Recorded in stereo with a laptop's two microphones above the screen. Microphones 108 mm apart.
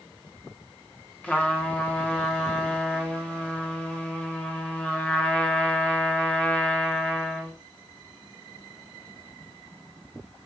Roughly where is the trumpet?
Centre.